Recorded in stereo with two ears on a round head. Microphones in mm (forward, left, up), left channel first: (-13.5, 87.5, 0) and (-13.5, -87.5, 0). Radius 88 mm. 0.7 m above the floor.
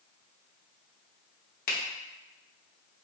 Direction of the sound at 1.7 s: 50° left (ahead or behind).